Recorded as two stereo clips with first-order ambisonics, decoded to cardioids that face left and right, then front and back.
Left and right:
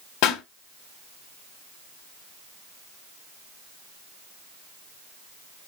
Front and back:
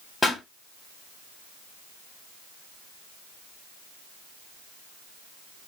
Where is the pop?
85° left, 2.0 m.